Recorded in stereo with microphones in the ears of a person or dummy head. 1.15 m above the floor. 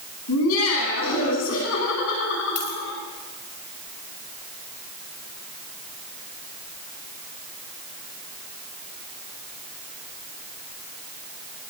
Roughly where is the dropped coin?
Left.